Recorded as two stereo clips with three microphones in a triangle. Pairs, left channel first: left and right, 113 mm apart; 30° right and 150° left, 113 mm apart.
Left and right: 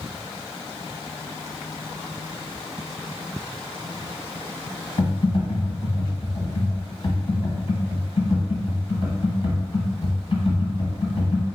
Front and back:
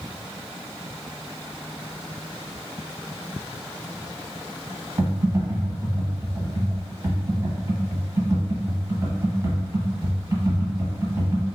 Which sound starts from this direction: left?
Typing on a keyboard, at 5.0 s.